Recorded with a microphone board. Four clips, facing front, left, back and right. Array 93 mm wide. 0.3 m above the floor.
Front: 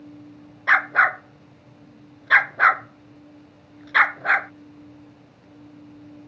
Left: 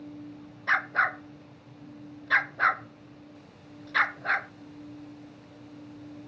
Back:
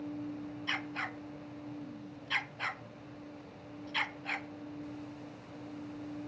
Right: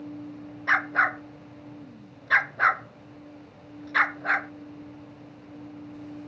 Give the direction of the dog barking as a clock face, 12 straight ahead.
12 o'clock.